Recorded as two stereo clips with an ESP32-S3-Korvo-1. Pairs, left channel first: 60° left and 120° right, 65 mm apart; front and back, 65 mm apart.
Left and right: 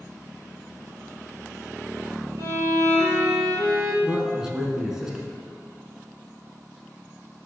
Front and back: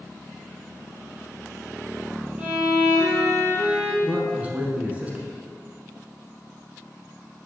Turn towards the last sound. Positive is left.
turn(degrees=180)